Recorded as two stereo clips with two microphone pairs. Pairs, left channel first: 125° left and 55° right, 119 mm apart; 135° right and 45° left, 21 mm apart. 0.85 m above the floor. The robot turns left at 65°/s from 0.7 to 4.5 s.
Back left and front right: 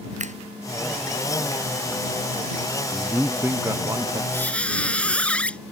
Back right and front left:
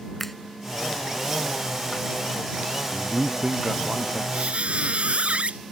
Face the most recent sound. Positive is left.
turn(degrees=45)